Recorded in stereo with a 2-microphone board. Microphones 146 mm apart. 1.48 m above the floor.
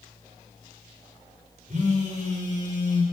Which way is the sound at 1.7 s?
55° right (ahead or behind).